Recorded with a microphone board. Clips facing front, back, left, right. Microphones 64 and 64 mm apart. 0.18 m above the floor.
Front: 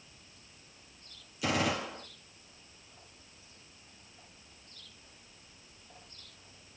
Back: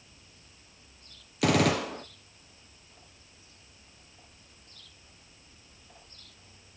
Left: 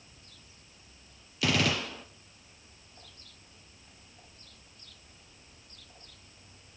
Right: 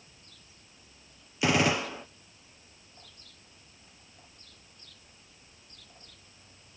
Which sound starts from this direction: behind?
A gunshot, at 1.4 s.